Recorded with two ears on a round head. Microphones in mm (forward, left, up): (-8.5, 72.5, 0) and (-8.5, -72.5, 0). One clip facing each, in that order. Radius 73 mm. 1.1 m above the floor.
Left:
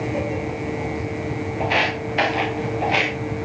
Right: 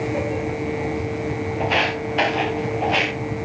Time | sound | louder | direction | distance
1.6 | footsteps | even | 5° left (ahead or behind) | 9.5 m